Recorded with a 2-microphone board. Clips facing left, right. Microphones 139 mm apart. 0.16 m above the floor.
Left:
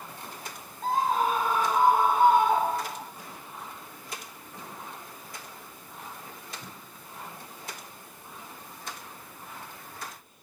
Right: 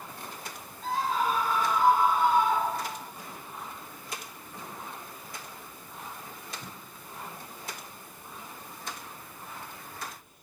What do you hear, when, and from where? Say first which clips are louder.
0.8 s a scream: left 3 dB; 50° left (ahead or behind), 7 m; by 3.0 s 65° left (ahead or behind), 7 m